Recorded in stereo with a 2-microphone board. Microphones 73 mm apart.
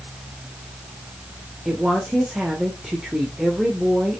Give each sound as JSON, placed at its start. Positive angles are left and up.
{"t": 1.6, "sound": "a woman speaking", "side_deg": -5, "distance_m": 1.3}